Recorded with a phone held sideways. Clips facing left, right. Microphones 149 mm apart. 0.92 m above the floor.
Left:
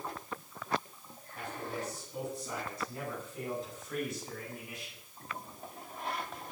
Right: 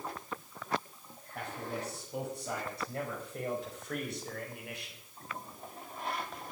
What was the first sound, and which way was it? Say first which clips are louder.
A man speaking: even; 85° right.